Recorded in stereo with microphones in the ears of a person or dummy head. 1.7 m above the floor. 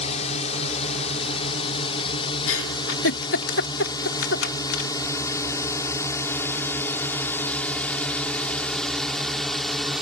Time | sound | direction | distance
0.0 | a drone | 40° left (ahead or behind) | ?
2.5 | a giggle | 75° left (ahead or behind) | ?